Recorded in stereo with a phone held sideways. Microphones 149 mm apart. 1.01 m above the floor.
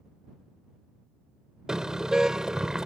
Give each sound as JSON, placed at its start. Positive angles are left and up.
{"t": 1.7, "sound": "a car horn", "side_deg": -5}